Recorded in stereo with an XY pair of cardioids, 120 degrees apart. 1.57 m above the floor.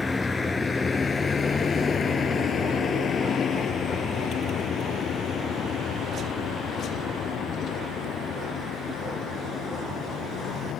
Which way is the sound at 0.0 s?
15° left.